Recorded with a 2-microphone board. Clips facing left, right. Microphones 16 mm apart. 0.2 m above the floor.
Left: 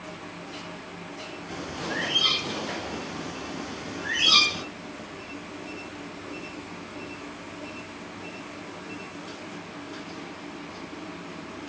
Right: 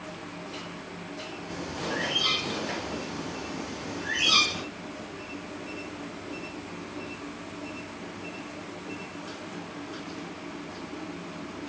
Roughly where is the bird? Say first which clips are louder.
Left 1 dB; left.